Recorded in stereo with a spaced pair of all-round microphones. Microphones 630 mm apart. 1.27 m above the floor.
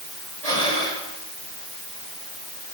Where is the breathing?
70° right (ahead or behind), 4.5 m.